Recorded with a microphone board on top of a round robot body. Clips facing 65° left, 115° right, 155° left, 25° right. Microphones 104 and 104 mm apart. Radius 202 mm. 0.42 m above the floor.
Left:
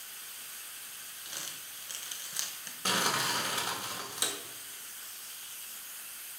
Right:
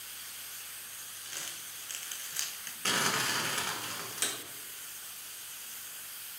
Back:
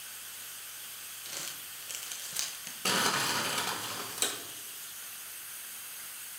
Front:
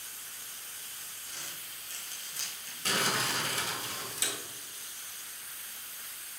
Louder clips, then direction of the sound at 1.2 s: Even, back 2 dB; 140° left.